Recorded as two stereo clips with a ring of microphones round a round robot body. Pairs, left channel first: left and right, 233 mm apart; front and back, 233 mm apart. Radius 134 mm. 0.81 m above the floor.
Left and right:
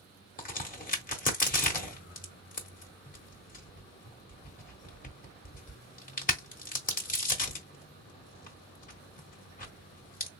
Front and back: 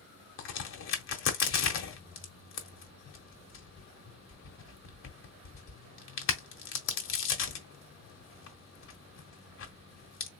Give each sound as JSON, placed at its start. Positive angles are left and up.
{"t": 0.4, "sound": "a crack", "azimuth_deg": 35, "distance_m": 1.4}